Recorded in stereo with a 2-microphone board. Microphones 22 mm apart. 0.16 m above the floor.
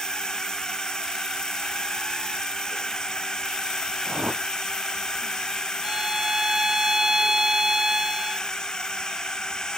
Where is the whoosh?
75° right (ahead or behind).